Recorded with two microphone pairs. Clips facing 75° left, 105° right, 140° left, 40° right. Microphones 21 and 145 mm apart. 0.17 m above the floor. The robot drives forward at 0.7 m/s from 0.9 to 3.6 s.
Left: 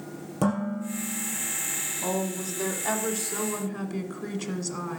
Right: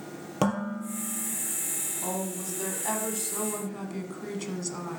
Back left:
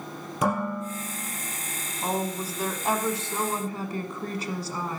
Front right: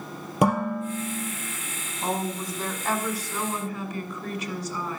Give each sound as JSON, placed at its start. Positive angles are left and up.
{"t": 0.4, "sound": "dishes clattering", "azimuth_deg": -55, "distance_m": 3.0}
{"t": 2.0, "sound": "a woman speaking", "azimuth_deg": 30, "distance_m": 1.1}